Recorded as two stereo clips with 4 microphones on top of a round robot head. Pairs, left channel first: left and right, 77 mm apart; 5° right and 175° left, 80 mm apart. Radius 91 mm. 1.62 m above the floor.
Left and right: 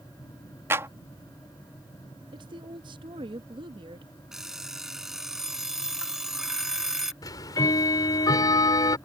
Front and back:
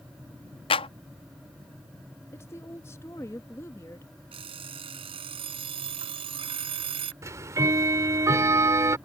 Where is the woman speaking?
70° right.